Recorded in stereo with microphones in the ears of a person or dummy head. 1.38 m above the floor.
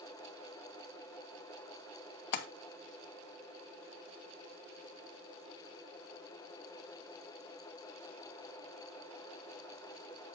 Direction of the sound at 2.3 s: 50° left (ahead or behind).